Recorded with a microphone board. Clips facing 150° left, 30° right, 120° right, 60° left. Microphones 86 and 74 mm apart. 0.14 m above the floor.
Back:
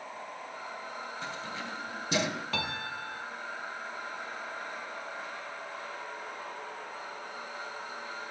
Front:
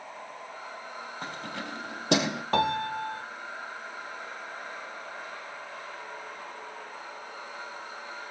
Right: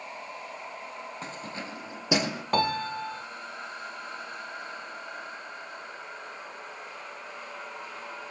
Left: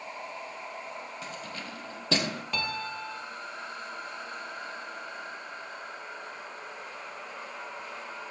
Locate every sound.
1.2 s keys jangling: 70° right, 3 m; by 2.4 s 40° right, 3.5 m
2.5 s a piano: 75° right, 0.9 m